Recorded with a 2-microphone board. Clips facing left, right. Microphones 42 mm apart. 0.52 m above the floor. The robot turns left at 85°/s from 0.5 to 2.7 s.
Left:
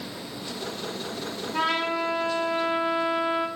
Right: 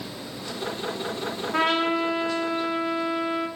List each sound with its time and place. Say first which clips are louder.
1.5 s a trumpet: right 3 dB; 105° right, 0.8 m; by 3.5 s 155° left, 0.8 m